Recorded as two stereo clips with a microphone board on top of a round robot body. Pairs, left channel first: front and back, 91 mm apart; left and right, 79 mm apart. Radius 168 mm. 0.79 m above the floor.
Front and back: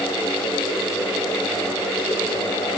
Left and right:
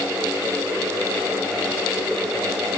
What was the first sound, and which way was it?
Only background noise.